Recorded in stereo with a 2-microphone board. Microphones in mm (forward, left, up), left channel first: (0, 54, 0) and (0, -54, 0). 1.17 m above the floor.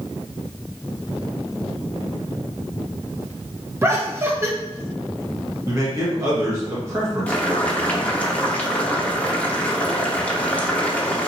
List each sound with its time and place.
3.8 s laughter: 25° right (ahead or behind), 1.0 m
5.7 s a man speaking: 25° right (ahead or behind), 1.5 m
7.3 s boiling: 10° left (ahead or behind), 0.8 m